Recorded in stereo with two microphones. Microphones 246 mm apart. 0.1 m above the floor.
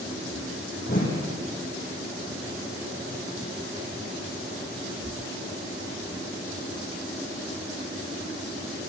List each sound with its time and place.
0.9 s a whoosh: 35° left (ahead or behind), 5.5 m